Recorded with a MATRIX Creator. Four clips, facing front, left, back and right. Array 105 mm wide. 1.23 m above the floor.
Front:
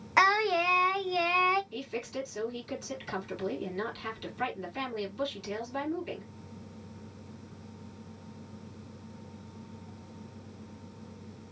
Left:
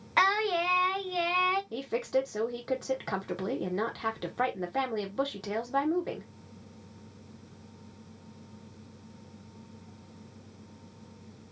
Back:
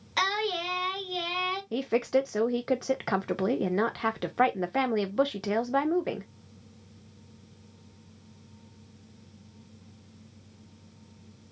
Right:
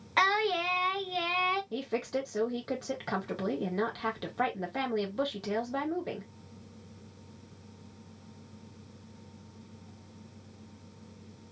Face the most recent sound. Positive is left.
turn(degrees=175)